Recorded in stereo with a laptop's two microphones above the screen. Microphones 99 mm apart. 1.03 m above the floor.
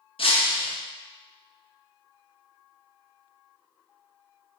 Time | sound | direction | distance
0.2 | breaking glass | 65° left (ahead or behind) | 0.6 m